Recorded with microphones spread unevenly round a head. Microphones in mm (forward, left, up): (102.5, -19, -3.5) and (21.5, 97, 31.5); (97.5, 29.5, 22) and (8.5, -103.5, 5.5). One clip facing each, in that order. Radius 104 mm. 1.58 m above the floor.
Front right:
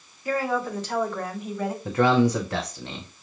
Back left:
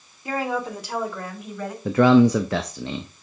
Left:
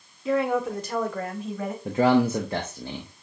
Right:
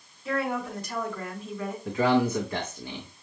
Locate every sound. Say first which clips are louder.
0.2 s a woman speaking: even, left 6 dB; 60° left, 2.0 m; by 1.8 s 30° left, 2 m
1.9 s a man speaking: back left 6 dB, left 3 dB; 125° left, 0.5 m